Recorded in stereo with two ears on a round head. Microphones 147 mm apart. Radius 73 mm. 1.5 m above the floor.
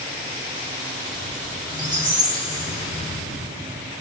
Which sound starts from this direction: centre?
A squeak, at 1.7 s.